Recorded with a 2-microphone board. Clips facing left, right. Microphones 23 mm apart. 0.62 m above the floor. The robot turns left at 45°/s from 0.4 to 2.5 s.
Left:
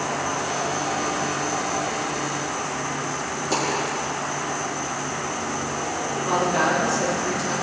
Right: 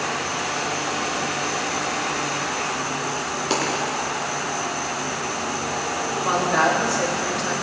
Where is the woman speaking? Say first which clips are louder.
Right 2 dB; 65° right (ahead or behind), 3.5 m.